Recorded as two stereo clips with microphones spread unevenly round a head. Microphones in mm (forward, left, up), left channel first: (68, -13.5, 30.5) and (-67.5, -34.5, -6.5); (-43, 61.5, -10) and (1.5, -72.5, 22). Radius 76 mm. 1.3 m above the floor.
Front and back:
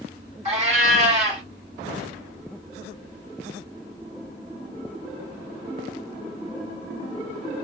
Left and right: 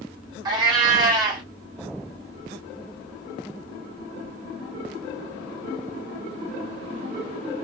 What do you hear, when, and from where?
0.5 s a cat meowing: 130° right, 2.5 m